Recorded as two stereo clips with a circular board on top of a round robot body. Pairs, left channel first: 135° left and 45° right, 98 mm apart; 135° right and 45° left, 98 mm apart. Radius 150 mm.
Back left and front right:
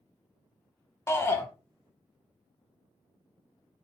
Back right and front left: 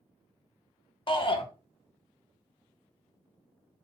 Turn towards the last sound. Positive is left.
turn(degrees=-165)